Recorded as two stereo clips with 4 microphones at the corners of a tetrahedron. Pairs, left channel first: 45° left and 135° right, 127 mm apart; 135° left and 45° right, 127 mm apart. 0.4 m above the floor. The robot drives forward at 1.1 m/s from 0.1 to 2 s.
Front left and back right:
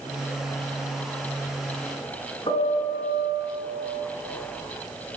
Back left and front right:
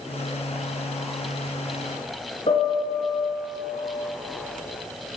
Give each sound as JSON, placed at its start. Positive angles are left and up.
{"t": 2.5, "sound": "a piano", "azimuth_deg": 95, "distance_m": 5.0}